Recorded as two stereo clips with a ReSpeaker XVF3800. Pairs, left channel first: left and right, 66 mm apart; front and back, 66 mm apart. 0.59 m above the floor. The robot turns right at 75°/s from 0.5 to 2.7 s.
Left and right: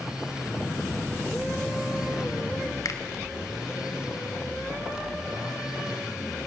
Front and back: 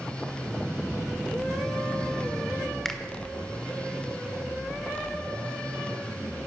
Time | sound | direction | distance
2.9 | a finger snap | 85° left | 1.5 m